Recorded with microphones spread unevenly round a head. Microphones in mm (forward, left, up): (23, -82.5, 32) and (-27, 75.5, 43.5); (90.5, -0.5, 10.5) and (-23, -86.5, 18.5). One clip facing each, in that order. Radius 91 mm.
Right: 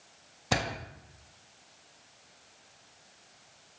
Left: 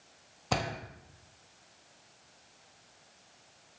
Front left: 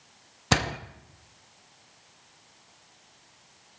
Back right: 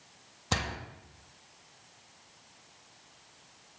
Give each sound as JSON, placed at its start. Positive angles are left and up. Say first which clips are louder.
{"t": 0.5, "sound": "a door slam", "louder": "right 1 dB, front left 8 dB", "azimuth_deg": 15, "distance_m": 0.6}